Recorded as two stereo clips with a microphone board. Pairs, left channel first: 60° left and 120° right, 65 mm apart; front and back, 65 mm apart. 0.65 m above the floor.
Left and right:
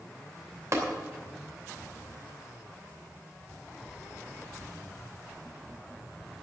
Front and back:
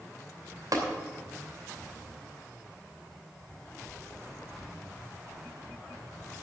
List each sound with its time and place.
0.7 s tapping: 160° right, 2.5 m